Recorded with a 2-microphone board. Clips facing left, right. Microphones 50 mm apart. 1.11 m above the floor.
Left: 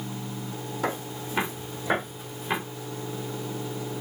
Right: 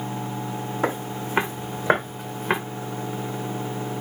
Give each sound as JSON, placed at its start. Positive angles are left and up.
{"t": 0.8, "sound": "footsteps", "side_deg": -35, "distance_m": 2.5}